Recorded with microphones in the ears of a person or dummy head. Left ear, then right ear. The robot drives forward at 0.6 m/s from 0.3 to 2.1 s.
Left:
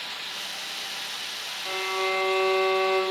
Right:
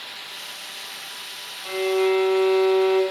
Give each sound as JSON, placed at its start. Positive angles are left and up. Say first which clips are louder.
{"t": 1.6, "sound": "a violin", "louder": "right 6 dB", "side_deg": 0, "distance_m": 3.0}